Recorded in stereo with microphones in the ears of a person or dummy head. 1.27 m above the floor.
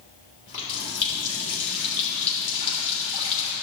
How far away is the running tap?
About 3 m.